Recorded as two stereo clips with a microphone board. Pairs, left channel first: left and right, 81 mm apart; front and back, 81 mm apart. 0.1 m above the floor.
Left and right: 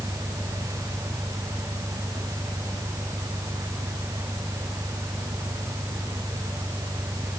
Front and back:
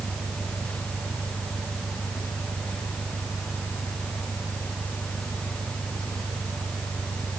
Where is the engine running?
170° right.